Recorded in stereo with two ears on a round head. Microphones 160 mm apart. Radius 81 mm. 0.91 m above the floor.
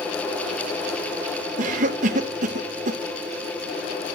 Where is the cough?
45° right (ahead or behind), 1.1 m.